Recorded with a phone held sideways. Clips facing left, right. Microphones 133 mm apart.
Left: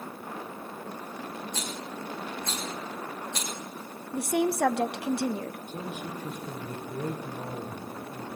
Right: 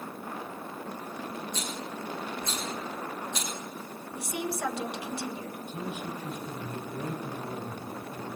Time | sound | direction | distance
1.5 | a rattle | 80° left | 5.5 m
4.1 | a woman speaking | 70° left (ahead or behind) | 0.8 m
5.7 | a man speaking | 50° left (ahead or behind) | 5.5 m